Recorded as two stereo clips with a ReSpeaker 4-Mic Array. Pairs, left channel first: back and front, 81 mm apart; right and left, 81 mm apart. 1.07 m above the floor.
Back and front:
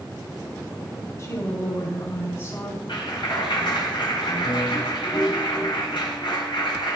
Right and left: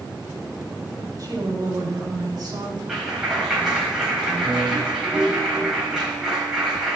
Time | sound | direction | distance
1.2 | a woman speaking | 130° left | 5.5 m
2.9 | a clap | 175° left | 4.5 m